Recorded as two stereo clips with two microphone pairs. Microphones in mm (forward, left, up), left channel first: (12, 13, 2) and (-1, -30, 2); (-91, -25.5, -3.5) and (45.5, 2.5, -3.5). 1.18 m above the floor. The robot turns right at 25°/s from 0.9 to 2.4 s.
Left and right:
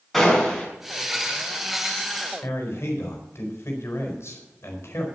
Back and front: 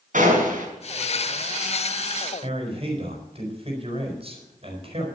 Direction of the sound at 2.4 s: 60° left.